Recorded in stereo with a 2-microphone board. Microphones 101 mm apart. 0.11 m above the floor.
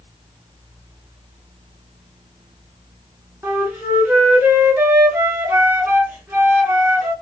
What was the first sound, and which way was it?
A flute, 25° right (ahead or behind).